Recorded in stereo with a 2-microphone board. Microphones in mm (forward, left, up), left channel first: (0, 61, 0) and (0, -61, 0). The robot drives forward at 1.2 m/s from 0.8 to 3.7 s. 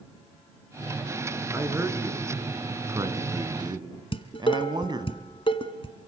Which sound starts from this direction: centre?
A man speaking, at 1.5 s.